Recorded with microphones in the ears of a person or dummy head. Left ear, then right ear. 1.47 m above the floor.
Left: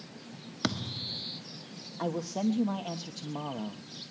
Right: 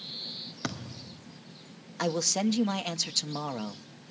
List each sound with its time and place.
0.6 s a thud: 15° left (ahead or behind), 1.4 m
2.0 s a man speaking: 60° right (ahead or behind), 1.2 m